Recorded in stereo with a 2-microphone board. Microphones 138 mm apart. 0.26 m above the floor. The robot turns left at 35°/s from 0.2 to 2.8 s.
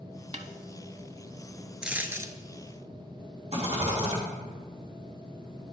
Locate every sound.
0.3 s a snare drum: 50° right (ahead or behind), 0.5 m; by 0.5 s 55° right (ahead or behind), 0.5 m
1.8 s a dropped coin: 5° right (ahead or behind), 0.6 m; by 2.3 s 25° right (ahead or behind), 0.6 m
3.5 s a rattle: 50° right (ahead or behind), 2.5 m